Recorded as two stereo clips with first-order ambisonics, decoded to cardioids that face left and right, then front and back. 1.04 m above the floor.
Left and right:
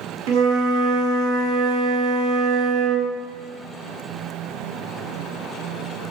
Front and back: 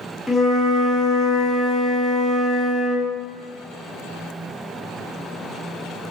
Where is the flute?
95° right, 1.3 m.